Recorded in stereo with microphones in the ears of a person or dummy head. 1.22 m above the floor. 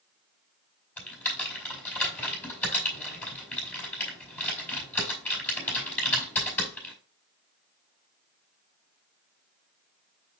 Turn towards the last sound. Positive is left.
turn(degrees=5)  # may be behind; listen again after turning